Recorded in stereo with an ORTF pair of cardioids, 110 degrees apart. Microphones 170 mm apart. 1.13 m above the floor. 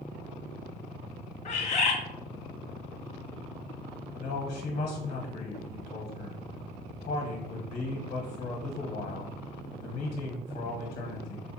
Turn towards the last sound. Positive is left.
turn(degrees=55)